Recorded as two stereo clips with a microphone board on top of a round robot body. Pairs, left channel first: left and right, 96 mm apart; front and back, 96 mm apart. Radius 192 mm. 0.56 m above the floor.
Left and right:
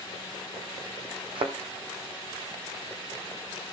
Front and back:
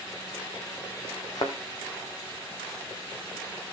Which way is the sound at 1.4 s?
55° right.